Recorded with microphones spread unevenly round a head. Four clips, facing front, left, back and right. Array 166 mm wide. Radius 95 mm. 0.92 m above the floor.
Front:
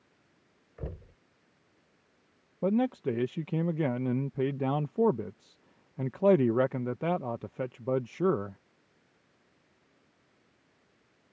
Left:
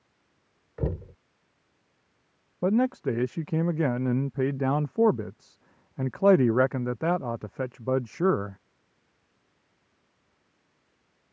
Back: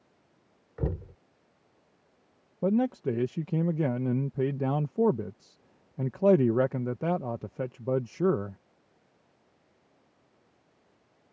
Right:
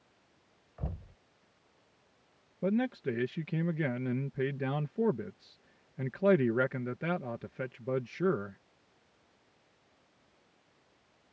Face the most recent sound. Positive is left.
turn(degrees=120)